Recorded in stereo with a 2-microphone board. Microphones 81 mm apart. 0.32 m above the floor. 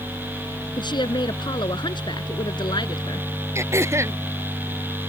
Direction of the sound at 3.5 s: 35° right (ahead or behind).